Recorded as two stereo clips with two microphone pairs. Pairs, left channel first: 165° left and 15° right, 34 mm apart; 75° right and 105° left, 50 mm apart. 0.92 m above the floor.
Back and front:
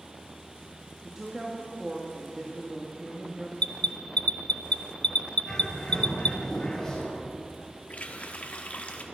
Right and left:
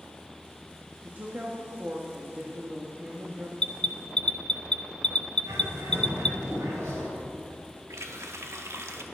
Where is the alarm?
145° right, 0.6 m.